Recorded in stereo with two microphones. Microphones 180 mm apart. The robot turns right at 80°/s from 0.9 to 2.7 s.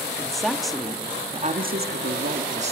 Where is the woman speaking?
Straight behind, 1.8 m; by 2.7 s 35° right, 1.8 m.